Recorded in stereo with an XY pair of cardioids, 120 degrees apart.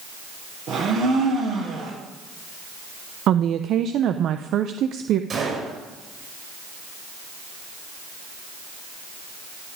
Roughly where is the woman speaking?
Ahead right.